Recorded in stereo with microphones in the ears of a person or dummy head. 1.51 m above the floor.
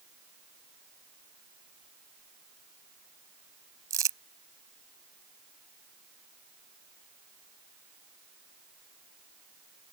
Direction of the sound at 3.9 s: 20° right (ahead or behind).